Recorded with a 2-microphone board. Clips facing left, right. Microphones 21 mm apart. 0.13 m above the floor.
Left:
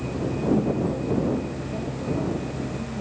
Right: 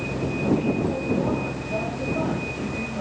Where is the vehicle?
45° right (ahead or behind); by 3.0 s 55° right (ahead or behind).